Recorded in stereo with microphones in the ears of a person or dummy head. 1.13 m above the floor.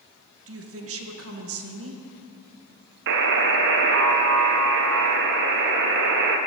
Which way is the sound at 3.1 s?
60° right (ahead or behind).